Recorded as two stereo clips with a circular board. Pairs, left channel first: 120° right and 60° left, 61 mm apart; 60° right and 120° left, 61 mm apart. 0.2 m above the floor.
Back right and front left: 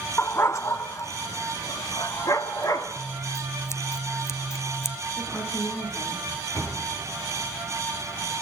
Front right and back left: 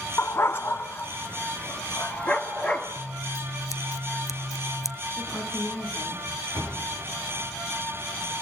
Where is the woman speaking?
105° right, 10 m.